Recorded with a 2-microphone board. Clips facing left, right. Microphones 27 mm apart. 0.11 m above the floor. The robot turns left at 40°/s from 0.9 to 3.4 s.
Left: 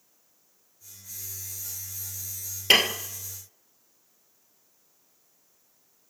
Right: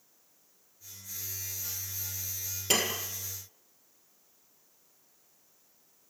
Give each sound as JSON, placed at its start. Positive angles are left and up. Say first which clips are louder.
{"t": 2.7, "sound": "dishes clattering", "louder": "left 9 dB", "side_deg": 55, "distance_m": 1.7}